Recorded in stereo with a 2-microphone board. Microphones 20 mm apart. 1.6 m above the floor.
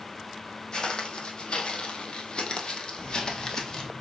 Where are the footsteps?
45° left (ahead or behind), 3 m; by 3.9 s 25° left (ahead or behind), 3 m.